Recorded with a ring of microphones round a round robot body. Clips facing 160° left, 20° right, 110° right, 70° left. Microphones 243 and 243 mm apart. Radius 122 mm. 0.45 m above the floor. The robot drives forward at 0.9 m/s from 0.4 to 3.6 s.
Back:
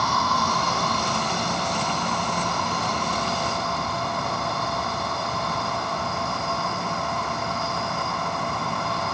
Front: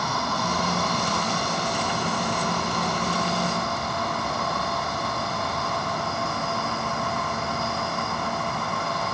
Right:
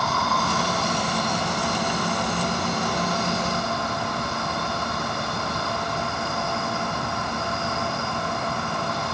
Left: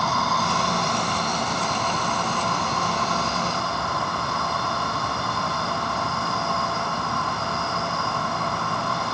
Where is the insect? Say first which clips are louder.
Back 1 dB, even; 155° left, 1.4 m; by 9.2 s 175° left, 4 m.